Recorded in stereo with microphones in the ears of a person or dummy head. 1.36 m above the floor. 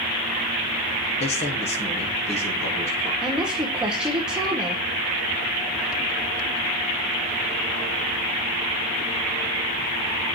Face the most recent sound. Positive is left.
turn(degrees=-10)  # may be behind; listen again after turning